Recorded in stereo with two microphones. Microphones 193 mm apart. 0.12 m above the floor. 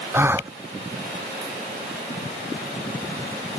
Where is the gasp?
10° right (ahead or behind).